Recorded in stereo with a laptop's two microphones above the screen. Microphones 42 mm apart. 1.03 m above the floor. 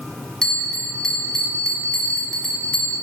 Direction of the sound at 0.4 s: 15° left (ahead or behind).